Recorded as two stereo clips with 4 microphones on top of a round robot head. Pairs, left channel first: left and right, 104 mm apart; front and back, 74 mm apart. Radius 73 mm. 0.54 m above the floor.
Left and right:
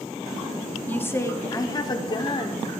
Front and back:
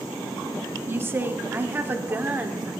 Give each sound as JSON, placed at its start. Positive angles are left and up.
{"t": 0.9, "sound": "a woman speaking", "azimuth_deg": 150, "distance_m": 0.9}